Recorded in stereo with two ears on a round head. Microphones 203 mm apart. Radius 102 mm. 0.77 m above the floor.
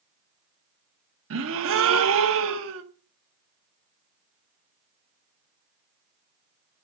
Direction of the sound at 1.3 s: 60° right (ahead or behind).